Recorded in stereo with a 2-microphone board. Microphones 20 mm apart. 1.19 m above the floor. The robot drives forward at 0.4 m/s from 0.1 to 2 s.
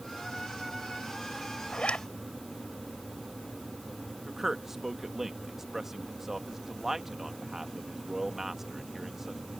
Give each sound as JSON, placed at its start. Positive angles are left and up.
{"t": 1.7, "sound": "a zipper", "side_deg": 75}
{"t": 4.3, "sound": "a man speaking", "side_deg": -10}